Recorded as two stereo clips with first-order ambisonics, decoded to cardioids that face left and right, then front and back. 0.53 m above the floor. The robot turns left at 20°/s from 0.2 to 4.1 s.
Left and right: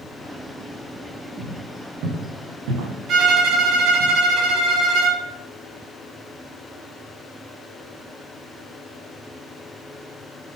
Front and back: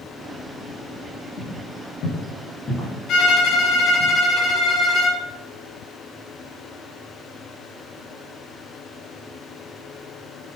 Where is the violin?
40° right, 1.9 m; by 5.2 s 60° right, 1.9 m.